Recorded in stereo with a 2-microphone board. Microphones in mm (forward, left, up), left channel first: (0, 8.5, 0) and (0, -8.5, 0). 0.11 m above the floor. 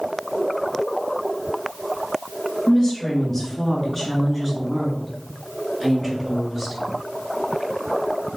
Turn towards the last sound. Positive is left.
turn(degrees=-5)  # may be behind; listen again after turning